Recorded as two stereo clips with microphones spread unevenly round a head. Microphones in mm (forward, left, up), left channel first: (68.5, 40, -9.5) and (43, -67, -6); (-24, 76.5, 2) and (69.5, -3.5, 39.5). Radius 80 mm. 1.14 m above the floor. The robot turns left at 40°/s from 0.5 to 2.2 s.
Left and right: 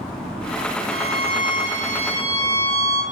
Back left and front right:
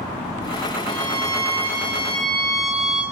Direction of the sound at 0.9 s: 65° left.